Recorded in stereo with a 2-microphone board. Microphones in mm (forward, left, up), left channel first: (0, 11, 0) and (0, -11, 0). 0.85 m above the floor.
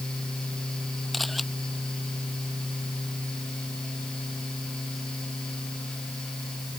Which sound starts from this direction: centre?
A camera shutter, at 1.1 s.